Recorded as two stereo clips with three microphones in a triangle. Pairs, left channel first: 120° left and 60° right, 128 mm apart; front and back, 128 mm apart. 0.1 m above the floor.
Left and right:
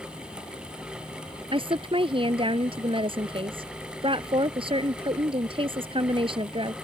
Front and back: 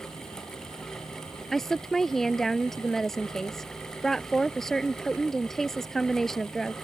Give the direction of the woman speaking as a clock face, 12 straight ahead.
3 o'clock.